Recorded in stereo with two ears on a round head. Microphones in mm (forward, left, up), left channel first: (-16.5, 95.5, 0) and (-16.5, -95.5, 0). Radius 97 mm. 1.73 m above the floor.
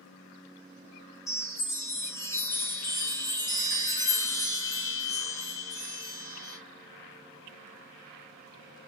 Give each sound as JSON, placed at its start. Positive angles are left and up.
{"t": 1.3, "sound": "a chime", "side_deg": 15, "distance_m": 1.0}